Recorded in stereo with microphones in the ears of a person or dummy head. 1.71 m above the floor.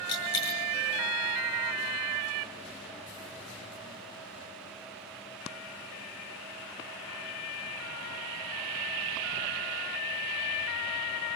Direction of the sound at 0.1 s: 75° left (ahead or behind).